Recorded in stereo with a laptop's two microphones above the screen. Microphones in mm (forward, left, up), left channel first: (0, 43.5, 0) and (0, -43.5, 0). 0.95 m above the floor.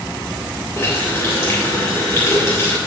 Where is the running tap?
30° left (ahead or behind), 2.5 m.